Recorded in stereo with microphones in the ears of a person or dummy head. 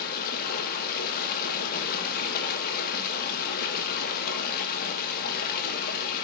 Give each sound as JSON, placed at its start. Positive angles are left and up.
{"t": 0.0, "sound": "running water", "side_deg": 55, "distance_m": 1.7}